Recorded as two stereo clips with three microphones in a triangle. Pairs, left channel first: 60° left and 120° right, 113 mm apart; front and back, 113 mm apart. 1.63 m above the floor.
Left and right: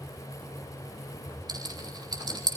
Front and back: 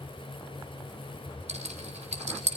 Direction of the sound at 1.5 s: 170° right.